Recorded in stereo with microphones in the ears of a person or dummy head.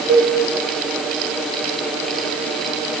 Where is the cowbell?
35° right (ahead or behind), 3 m.